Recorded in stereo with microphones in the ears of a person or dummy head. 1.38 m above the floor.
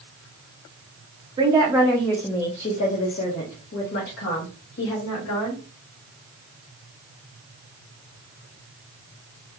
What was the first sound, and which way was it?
A woman speaking, 20° right (ahead or behind).